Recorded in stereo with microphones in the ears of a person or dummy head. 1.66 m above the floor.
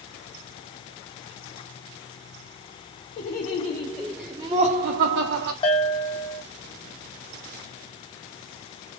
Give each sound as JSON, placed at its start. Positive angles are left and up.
{"t": 3.2, "sound": "laughter", "side_deg": 40, "distance_m": 0.9}
{"t": 5.6, "sound": "a bell", "side_deg": 25, "distance_m": 0.6}